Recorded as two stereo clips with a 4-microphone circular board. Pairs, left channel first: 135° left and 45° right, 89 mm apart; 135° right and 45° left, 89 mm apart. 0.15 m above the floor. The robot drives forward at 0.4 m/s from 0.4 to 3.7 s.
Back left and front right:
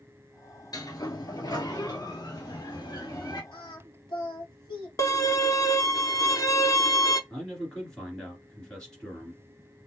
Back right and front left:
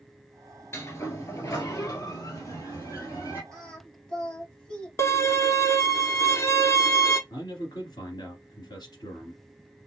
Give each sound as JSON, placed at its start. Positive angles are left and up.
{"t": 0.7, "sound": "a sliding door", "azimuth_deg": 170, "distance_m": 0.9}
{"t": 3.5, "sound": "singing", "azimuth_deg": 145, "distance_m": 2.0}
{"t": 5.0, "sound": "a violin", "azimuth_deg": 175, "distance_m": 0.5}
{"t": 7.3, "sound": "a man speaking", "azimuth_deg": -145, "distance_m": 1.8}